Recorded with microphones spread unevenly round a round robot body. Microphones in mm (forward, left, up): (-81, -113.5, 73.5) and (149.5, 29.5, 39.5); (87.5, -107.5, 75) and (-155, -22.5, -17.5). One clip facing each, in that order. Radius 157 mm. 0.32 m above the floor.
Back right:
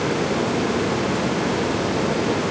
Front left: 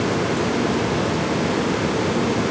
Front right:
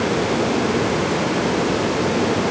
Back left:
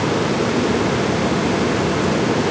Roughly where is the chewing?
I don't hear chewing.